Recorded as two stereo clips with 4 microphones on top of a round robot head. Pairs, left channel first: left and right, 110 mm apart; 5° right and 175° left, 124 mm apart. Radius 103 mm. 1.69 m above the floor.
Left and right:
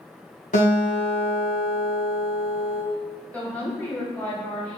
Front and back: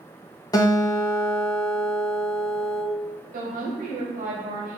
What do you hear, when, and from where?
0.5 s a guitar: 55° left, 1.2 m
3.3 s a woman speaking: 170° left, 1.6 m